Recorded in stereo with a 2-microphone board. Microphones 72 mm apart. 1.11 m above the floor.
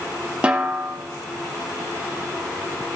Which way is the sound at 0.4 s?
15° right (ahead or behind).